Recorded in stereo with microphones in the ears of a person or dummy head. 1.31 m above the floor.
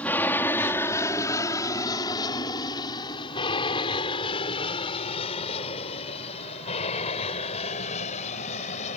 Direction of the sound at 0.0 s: 10° left (ahead or behind).